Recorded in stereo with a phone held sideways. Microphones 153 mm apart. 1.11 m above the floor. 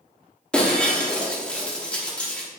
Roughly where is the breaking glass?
Centre.